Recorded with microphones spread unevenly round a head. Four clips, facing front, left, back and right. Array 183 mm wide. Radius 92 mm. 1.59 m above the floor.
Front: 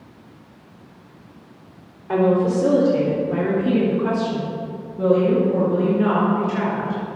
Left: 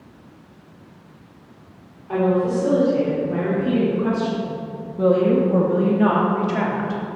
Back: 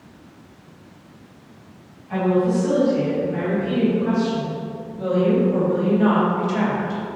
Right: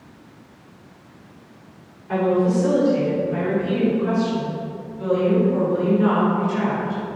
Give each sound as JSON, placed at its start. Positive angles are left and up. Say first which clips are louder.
{"t": 2.1, "sound": "a woman speaking", "louder": "even, front 2 dB", "azimuth_deg": 0, "distance_m": 4.0}